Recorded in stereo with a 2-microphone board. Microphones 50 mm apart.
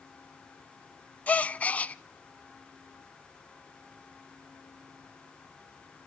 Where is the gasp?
30° left (ahead or behind), 0.5 m.